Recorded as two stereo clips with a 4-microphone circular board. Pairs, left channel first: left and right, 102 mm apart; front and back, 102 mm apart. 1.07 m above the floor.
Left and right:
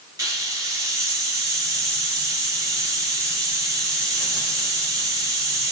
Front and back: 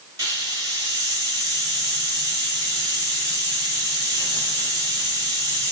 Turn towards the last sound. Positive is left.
turn(degrees=-135)